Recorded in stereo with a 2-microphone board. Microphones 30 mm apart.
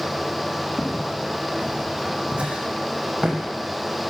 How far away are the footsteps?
About 5 m.